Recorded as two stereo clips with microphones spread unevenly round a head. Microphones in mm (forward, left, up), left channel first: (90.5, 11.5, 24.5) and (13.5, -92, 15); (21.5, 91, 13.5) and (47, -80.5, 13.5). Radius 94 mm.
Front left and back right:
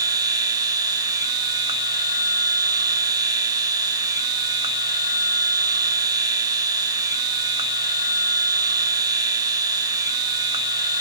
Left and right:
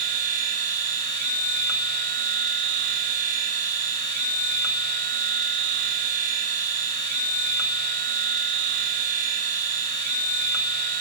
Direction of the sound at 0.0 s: 75° right.